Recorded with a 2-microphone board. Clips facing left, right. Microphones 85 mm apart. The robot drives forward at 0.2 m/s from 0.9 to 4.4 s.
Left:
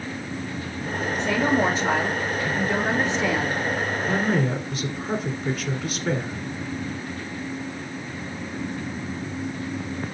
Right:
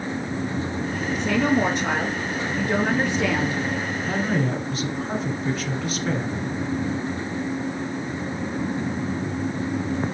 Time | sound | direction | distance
1.2 | a woman speaking | 65° right (ahead or behind) | 3.5 m
4.1 | a woman speaking | centre (ahead or behind) | 1.8 m